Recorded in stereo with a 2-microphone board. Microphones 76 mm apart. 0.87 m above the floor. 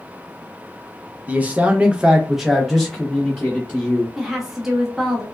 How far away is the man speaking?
About 0.7 m.